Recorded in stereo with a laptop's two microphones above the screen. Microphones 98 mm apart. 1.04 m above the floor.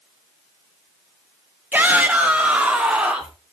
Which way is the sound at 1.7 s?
20° right (ahead or behind).